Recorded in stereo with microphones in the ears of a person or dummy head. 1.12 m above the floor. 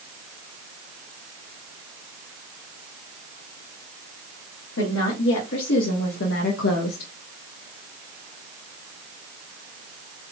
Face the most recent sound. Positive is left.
turn(degrees=65)  # may be behind; listen again after turning